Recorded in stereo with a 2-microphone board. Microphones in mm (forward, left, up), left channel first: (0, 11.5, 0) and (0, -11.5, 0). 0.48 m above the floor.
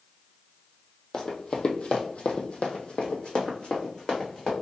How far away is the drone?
I don't hear a drone.